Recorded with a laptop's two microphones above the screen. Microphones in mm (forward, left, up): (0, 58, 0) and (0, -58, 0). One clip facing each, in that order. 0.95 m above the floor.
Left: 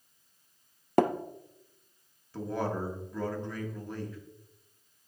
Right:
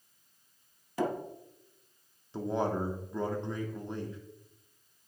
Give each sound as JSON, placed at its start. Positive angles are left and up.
{"t": 1.0, "sound": "tapping", "side_deg": 65, "distance_m": 0.6}
{"t": 2.3, "sound": "a man speaking", "side_deg": -25, "distance_m": 1.5}